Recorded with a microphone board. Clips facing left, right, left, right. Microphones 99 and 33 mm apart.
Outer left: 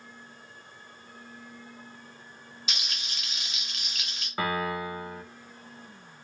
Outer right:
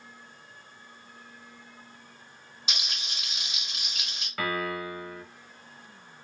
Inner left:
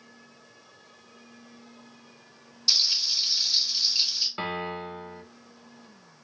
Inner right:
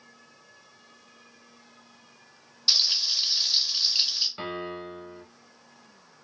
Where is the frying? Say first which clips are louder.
Outer right 1 dB, inner right 1 dB; 30° right (ahead or behind), 2.0 m.